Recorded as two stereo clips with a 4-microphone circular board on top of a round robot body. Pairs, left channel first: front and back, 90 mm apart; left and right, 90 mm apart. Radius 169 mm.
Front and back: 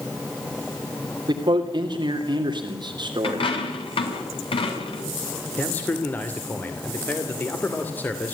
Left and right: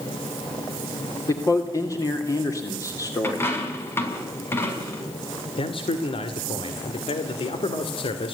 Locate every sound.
1.3 s a man speaking: 140° left, 3 m
3.2 s a dropped coin: 25° left, 5 m
5.6 s a man speaking: 70° left, 2.5 m